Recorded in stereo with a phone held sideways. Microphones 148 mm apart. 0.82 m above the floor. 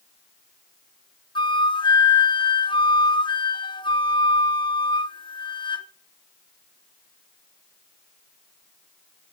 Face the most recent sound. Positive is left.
turn(degrees=35)  # may be behind; listen again after turning